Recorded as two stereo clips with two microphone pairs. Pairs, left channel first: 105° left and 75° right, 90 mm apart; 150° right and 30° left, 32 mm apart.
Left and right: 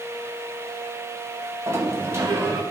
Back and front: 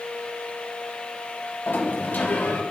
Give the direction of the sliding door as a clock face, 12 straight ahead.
5 o'clock.